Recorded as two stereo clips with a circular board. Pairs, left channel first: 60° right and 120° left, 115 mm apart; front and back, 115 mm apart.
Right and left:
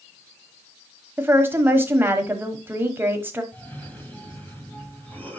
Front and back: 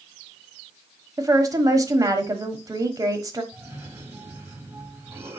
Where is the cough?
125° right, 1.8 m.